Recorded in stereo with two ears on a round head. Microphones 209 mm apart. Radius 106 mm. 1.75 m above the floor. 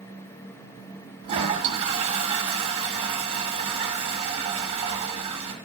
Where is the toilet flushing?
25° right (ahead or behind), 1.4 m.